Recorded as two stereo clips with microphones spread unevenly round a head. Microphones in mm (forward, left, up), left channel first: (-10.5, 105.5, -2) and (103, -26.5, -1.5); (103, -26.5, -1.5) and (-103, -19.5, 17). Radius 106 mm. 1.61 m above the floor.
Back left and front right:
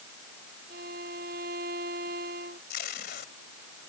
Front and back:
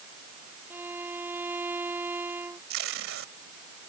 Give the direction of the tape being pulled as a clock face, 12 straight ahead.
6 o'clock.